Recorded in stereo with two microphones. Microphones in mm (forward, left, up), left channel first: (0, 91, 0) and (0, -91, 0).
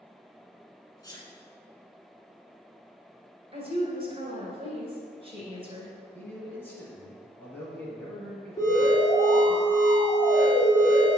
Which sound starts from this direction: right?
A woman speaking, at 3.5 s.